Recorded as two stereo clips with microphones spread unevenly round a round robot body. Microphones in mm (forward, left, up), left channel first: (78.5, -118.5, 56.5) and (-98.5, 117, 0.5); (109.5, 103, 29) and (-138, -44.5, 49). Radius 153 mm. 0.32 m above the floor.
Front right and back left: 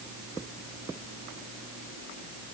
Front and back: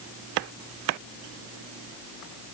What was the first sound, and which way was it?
Only background noise.